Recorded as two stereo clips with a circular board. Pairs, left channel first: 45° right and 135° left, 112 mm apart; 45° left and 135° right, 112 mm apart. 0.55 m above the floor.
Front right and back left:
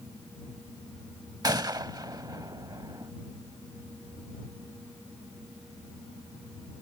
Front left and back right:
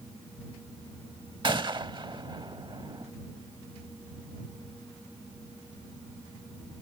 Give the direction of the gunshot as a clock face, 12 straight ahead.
6 o'clock.